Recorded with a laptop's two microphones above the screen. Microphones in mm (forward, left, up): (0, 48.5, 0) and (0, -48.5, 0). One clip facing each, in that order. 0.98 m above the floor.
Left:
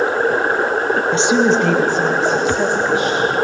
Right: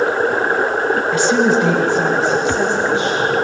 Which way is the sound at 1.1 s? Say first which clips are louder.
Even; 30° left (ahead or behind).